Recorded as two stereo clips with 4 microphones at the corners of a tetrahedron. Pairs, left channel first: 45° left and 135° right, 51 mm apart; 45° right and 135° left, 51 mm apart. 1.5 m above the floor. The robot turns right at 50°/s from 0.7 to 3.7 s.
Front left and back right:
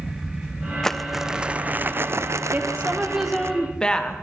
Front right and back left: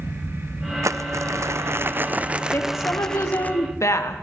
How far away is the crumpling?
About 0.8 m.